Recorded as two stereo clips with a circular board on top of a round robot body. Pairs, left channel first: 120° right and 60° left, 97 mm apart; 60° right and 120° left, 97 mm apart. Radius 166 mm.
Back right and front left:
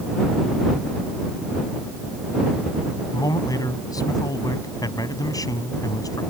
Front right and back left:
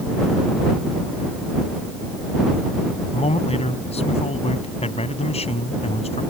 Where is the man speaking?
65° right.